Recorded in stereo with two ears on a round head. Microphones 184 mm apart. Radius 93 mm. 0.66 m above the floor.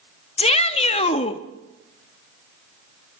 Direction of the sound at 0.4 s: 30° left (ahead or behind).